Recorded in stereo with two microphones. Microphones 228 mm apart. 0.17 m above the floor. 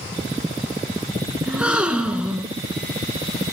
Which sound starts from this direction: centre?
A gasp, at 1.5 s.